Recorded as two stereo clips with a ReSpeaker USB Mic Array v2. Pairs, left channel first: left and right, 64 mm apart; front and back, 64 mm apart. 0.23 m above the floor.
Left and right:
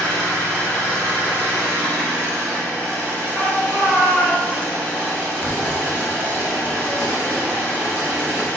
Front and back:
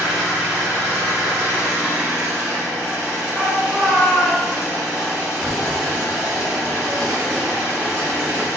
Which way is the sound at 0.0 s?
130° left.